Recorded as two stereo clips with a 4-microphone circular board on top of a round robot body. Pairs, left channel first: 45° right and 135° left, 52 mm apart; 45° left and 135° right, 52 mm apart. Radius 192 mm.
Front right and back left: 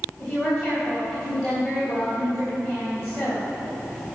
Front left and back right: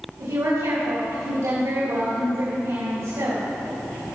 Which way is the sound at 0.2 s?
140° right.